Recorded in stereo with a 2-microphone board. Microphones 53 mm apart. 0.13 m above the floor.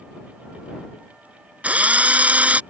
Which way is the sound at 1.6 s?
25° right (ahead or behind).